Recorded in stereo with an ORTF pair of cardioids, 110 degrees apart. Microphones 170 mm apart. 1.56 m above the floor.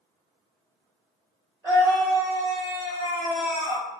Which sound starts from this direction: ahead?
A scream, at 1.6 s.